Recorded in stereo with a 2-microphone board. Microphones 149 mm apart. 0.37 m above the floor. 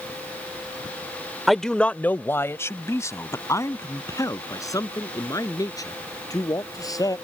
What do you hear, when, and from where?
1.5 s a man speaking: centre (ahead or behind); by 7.2 s 25° left (ahead or behind)